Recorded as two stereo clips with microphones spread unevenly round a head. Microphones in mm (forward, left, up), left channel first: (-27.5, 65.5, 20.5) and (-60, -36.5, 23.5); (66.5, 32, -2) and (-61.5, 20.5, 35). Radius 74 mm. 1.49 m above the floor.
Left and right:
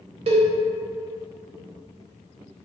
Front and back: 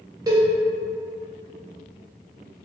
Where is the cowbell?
120° right, 0.7 m.